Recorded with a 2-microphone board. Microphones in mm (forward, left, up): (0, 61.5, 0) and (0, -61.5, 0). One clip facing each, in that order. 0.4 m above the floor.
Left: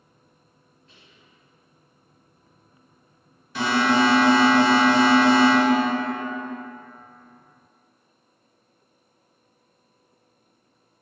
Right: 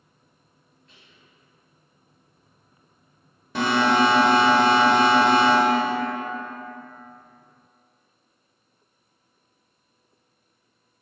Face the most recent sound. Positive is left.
turn(degrees=-55)  # may be behind; listen again after turning